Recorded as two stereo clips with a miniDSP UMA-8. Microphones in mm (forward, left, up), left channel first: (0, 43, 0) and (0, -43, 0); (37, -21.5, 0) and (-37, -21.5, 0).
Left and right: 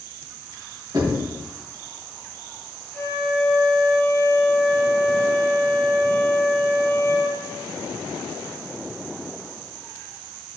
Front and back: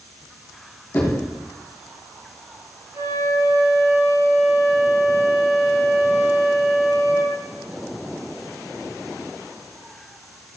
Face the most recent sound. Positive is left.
turn(degrees=165)